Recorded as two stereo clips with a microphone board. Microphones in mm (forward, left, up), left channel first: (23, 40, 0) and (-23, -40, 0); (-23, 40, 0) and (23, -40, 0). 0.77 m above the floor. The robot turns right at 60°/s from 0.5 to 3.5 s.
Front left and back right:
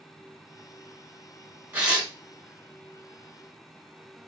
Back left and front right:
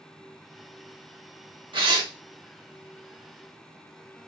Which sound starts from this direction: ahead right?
Tearing paper, at 1.7 s.